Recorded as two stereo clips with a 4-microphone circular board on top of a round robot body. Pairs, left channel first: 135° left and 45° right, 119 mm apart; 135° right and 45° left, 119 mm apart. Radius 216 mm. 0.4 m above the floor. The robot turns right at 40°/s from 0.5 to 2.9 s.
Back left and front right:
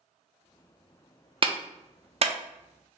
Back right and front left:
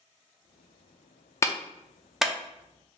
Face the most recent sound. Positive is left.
turn(degrees=-15)